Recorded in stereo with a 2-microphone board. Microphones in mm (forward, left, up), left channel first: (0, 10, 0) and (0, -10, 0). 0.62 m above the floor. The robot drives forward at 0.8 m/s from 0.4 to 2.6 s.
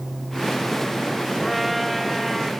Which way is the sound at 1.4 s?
Centre (ahead or behind).